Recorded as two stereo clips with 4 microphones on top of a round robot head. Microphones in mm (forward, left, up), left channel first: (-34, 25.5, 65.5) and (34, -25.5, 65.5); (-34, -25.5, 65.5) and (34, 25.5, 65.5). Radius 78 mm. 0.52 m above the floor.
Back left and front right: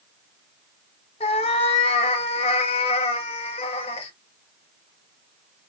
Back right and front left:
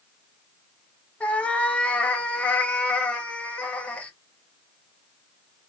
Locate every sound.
1.2 s a cat meowing: 140° left, 0.5 m